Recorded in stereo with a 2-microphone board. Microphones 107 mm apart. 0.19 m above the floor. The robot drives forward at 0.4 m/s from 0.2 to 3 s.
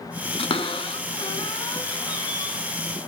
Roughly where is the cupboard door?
Left.